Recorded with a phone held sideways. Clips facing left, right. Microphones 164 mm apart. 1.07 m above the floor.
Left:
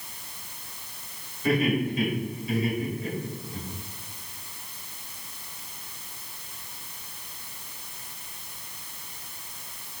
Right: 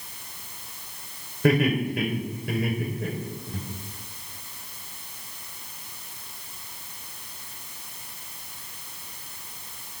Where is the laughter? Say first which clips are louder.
Right 2 dB; 75° right (ahead or behind), 4 m; by 3.6 s 60° right (ahead or behind), 4.5 m.